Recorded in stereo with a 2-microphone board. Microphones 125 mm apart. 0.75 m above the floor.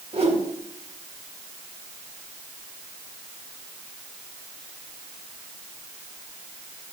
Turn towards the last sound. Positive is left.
turn(degrees=-55)  # may be behind; listen again after turning